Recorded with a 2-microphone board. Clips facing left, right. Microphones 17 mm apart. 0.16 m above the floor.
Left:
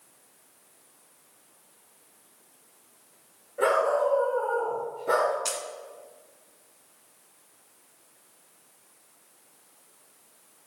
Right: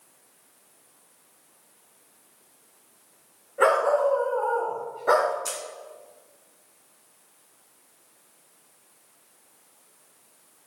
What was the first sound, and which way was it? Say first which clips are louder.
A dog barking: right 3 dB; 60° right (ahead or behind).